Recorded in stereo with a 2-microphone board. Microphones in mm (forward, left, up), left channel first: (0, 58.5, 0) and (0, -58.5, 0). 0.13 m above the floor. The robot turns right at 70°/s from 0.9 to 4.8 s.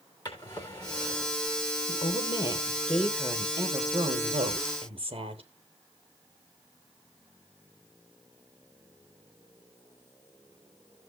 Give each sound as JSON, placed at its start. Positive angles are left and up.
{"t": 0.2, "sound": "a drawer", "azimuth_deg": 145, "distance_m": 3.0}
{"t": 1.9, "sound": "a woman speaking", "azimuth_deg": 100, "distance_m": 2.5}